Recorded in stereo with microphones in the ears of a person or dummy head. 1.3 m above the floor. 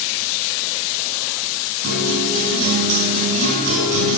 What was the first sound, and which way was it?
A guitar, 70° right (ahead or behind).